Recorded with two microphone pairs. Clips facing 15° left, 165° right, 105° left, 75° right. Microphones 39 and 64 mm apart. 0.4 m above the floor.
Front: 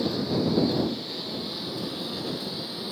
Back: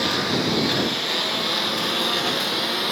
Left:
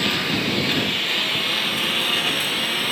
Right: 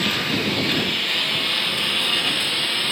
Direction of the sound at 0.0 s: 165° right.